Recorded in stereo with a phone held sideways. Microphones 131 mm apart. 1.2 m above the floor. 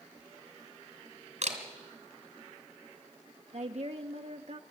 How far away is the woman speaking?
About 0.7 m.